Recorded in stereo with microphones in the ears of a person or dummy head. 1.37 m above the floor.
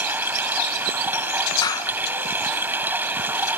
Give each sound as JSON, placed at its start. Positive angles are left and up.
{"t": 0.0, "sound": "running water", "side_deg": -10}
{"t": 1.6, "sound": "a clap", "side_deg": 20}